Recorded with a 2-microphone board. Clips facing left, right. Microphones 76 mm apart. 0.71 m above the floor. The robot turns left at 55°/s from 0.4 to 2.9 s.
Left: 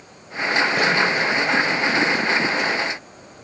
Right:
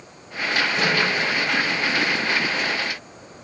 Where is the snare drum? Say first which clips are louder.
Left 1 dB; 75° left (ahead or behind), 1.8 m; by 0.9 s 85° left, 1.8 m.